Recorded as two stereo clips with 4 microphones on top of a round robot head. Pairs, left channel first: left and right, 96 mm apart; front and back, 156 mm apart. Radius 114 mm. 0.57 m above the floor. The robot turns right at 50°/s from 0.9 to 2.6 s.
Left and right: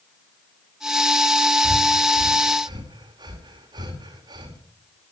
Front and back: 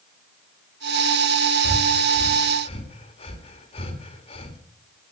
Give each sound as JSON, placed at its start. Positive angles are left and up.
{"t": 1.6, "sound": "breathing", "azimuth_deg": -100, "distance_m": 2.5}